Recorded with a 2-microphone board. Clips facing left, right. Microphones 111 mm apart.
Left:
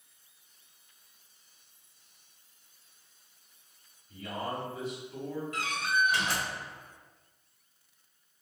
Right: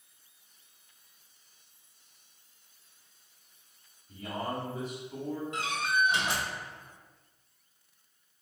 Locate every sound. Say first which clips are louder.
4.1 s a man speaking: right 1 dB; 45° right (ahead or behind), 1.6 m
5.5 s a door slam: even; 25° right (ahead or behind), 1.0 m